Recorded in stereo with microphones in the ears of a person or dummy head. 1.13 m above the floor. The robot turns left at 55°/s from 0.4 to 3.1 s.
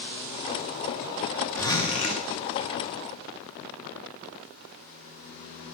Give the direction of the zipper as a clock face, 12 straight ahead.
6 o'clock.